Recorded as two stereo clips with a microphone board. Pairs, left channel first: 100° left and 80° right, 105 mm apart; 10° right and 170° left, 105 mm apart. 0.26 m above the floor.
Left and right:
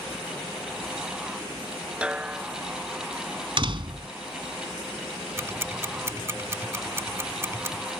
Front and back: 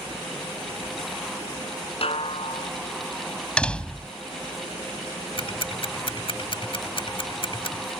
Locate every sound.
2.0 s a snare drum: straight ahead
3.6 s a door slam: 90° right
5.4 s ticking: 20° right